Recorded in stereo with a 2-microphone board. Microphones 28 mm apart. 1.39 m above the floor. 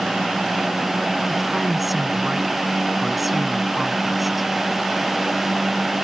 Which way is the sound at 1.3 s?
5° right (ahead or behind).